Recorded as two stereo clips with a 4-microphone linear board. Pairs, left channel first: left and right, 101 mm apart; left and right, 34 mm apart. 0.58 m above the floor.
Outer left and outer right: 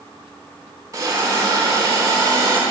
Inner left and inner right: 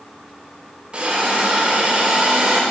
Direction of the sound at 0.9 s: 35° right (ahead or behind).